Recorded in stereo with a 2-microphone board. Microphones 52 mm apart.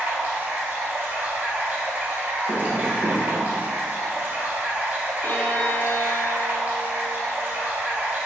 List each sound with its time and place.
0.0 s running water: 35° right (ahead or behind), 0.9 m
2.5 s tapping: 35° right (ahead or behind), 1.0 m
5.2 s a violin: 45° left (ahead or behind), 0.6 m